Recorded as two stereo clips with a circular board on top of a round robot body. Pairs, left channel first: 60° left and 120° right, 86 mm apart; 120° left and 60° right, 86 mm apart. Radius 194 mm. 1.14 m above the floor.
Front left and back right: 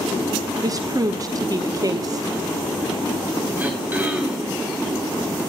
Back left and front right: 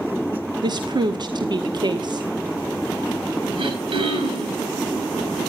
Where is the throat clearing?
50° right, 4 m.